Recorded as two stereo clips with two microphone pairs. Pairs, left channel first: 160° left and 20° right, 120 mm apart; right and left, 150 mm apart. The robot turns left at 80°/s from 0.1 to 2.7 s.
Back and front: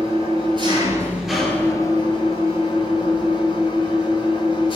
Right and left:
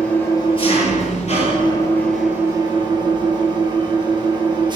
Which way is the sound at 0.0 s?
15° right.